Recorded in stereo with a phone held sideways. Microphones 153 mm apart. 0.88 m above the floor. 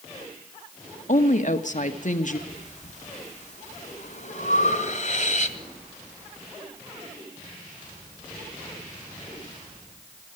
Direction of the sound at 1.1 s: 55° left (ahead or behind).